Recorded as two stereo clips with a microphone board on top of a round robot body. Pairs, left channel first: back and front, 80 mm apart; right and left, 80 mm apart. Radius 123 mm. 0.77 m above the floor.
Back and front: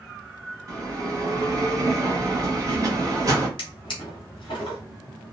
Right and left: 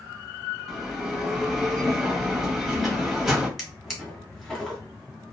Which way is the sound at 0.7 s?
5° left.